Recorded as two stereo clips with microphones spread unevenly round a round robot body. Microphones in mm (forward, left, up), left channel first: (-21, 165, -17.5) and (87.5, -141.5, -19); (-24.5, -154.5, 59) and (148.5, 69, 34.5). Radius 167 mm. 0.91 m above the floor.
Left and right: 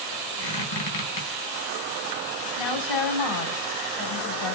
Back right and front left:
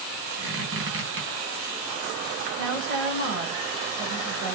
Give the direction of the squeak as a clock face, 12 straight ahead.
8 o'clock.